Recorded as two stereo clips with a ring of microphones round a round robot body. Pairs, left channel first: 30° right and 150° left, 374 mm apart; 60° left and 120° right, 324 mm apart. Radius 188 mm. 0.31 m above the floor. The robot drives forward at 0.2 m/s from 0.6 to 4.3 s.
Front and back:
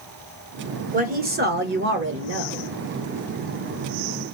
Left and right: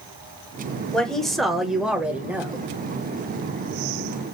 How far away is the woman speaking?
About 1.1 m.